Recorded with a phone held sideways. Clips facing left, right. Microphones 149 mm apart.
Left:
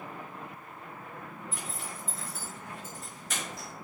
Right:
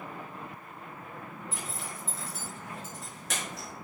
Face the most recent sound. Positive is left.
turn(degrees=-85)